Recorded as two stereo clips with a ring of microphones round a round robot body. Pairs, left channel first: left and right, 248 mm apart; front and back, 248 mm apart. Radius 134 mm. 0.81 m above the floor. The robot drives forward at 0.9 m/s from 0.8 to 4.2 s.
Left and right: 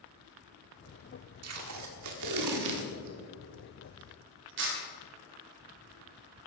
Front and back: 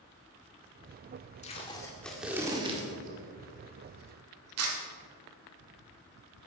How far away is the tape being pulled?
About 1.7 m.